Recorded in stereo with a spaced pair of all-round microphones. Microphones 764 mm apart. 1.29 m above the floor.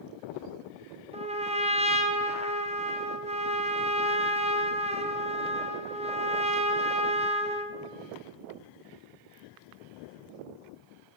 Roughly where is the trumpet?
Centre.